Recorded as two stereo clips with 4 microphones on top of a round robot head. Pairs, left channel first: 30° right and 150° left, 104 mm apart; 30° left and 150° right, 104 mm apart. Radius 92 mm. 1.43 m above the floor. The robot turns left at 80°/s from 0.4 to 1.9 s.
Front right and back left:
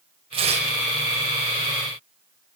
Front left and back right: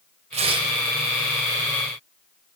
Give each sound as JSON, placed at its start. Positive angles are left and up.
{"t": 0.3, "sound": "tearing paper", "azimuth_deg": -175, "distance_m": 5.5}